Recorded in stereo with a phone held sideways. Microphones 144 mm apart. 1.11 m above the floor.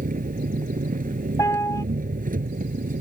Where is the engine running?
75° right (ahead or behind).